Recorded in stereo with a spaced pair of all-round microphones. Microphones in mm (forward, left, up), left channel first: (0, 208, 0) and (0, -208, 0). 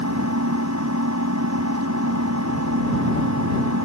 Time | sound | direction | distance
0.0 | an engine running | 40° right (ahead or behind) | ?